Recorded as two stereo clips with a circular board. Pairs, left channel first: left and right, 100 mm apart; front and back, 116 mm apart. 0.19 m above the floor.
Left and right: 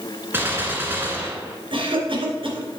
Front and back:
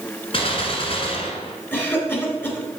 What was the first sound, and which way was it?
A gunshot, 25° right.